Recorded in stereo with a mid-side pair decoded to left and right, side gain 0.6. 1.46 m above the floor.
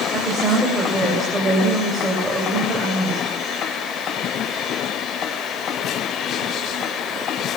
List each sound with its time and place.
0.1 s a woman speaking: 15° right, 9 m